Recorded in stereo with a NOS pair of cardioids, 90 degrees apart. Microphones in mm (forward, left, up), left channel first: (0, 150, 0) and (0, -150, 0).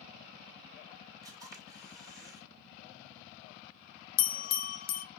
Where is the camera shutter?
10° right, 1.7 m.